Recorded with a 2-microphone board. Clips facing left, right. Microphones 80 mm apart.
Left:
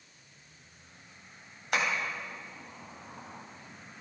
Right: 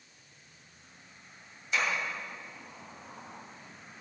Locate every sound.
1.7 s tapping: 65° left (ahead or behind), 3 m